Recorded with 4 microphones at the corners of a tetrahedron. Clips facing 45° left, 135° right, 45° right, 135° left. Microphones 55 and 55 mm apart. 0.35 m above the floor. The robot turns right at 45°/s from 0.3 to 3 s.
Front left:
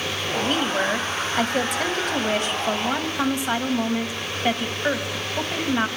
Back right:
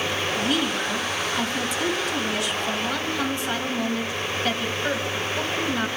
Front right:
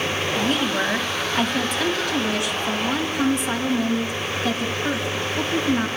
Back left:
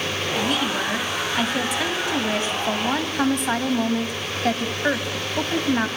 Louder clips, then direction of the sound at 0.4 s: Front left 4 dB, front right 1 dB; 5° right.